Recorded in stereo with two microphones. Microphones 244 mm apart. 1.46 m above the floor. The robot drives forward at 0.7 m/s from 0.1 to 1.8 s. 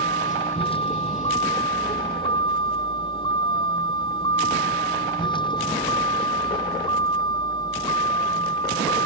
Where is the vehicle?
20° left (ahead or behind); by 9.1 s 15° left (ahead or behind).